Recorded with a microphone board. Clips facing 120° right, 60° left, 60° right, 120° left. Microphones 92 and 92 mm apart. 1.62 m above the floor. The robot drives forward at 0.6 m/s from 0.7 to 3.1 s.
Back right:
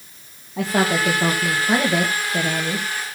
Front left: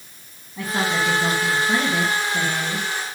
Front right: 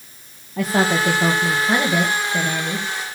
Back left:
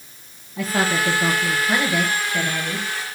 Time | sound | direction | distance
0.6 | a woman speaking | 105° right | 1.8 m